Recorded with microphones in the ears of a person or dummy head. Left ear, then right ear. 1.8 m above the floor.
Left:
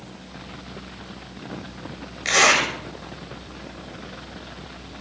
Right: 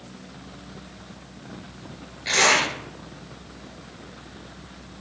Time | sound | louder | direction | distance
2.2 | a zipper | left 2 dB | 50° left (ahead or behind) | 1.7 m